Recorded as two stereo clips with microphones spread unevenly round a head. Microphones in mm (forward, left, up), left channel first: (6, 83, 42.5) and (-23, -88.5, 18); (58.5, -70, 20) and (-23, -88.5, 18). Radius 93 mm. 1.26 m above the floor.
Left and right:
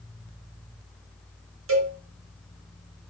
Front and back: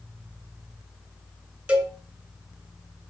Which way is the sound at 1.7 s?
90° right.